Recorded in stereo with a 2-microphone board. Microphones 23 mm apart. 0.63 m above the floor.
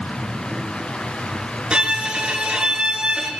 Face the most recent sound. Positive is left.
turn(degrees=-50)  # may be behind; listen again after turning